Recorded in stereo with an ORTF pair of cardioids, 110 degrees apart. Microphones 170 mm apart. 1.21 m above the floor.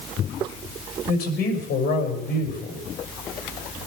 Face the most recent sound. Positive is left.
turn(degrees=70)